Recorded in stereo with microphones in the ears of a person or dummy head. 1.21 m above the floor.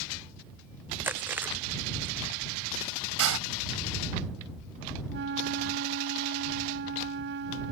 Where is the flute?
65° right (ahead or behind).